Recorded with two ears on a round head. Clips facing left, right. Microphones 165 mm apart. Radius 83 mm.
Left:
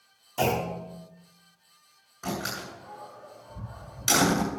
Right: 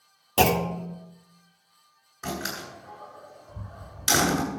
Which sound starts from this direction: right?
A clunk, at 0.4 s.